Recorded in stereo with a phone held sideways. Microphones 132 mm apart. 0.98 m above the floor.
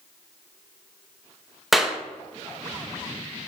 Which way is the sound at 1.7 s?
Centre (ahead or behind).